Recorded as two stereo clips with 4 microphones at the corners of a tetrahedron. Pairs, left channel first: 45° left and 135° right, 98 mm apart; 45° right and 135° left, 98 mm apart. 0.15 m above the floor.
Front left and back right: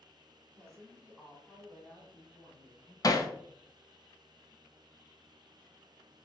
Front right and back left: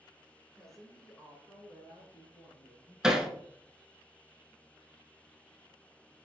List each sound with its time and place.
0.6 s a woman speaking: 135° right, 1.3 m; by 2.9 s straight ahead, 2.0 m
3.0 s hammering: 55° left, 0.5 m